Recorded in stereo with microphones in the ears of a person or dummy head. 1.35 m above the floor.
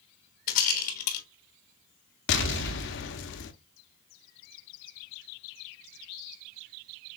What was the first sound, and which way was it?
A rattle, 55° left (ahead or behind).